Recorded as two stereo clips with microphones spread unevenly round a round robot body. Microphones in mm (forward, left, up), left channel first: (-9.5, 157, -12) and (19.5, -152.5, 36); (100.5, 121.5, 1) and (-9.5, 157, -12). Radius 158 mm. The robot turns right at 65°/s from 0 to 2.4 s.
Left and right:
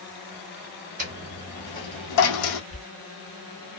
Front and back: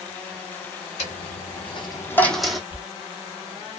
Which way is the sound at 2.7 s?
30° left.